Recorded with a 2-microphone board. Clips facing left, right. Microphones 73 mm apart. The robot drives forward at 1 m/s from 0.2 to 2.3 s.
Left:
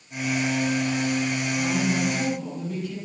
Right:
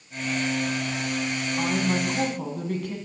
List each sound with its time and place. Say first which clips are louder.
1.6 s a woman speaking: even; 55° right (ahead or behind), 8.5 m; by 3.0 s 60° right (ahead or behind), 8 m